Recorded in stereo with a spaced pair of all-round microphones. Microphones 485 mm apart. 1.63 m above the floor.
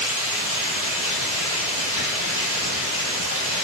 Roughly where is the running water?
Right.